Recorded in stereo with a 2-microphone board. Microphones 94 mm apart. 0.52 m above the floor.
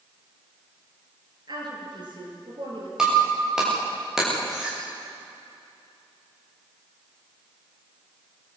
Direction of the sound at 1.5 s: 50° right (ahead or behind).